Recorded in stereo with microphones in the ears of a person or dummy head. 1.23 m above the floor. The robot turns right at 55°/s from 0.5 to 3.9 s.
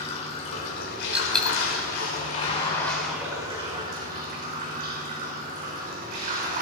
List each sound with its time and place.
0.0 s running water: 35° left, 3.5 m; by 6.6 s 135° right, 3.5 m
1.1 s a dropped coin: 5° right (ahead or behind), 3.5 m; by 1.6 s 15° left (ahead or behind), 3.5 m